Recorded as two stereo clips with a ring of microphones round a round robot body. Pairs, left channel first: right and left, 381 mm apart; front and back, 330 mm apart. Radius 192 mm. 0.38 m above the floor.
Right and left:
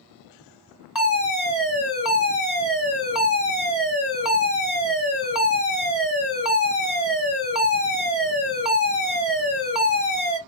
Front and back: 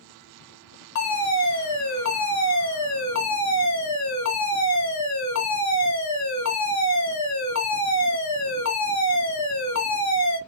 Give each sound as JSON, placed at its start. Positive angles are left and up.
{"t": 0.9, "sound": "a fire alarm", "azimuth_deg": 5, "distance_m": 3.0}